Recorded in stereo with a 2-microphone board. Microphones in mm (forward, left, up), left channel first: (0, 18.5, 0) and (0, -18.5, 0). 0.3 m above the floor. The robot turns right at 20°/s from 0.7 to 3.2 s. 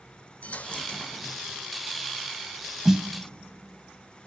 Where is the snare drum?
10° right (ahead or behind), 0.8 m.